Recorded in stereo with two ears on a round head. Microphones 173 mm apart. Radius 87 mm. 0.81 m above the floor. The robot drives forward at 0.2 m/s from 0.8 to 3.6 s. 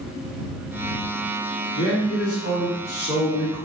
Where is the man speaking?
60° left (ahead or behind), 2.5 m; by 3.6 s 65° left (ahead or behind), 2.5 m.